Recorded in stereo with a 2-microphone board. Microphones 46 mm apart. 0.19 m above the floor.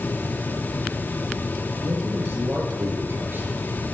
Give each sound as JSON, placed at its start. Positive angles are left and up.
{"t": 1.8, "sound": "a man speaking", "side_deg": -60, "distance_m": 4.0}